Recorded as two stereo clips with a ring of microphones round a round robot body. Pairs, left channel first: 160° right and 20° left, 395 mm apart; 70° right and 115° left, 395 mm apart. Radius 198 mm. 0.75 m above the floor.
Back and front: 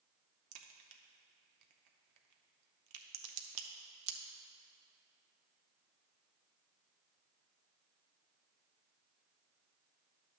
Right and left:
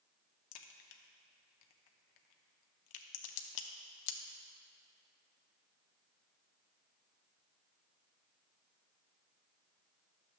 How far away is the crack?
About 0.7 m.